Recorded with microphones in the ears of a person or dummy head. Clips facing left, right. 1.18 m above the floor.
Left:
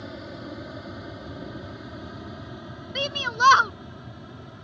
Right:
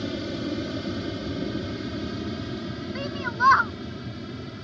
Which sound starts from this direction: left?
A shout, at 3.0 s.